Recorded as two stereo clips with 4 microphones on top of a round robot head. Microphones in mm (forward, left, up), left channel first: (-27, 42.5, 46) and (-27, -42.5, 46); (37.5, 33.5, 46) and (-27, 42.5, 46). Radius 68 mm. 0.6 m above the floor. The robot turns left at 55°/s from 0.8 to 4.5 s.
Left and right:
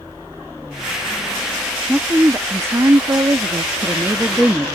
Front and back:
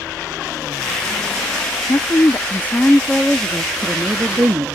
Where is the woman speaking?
15° right; by 4.7 s 160° right.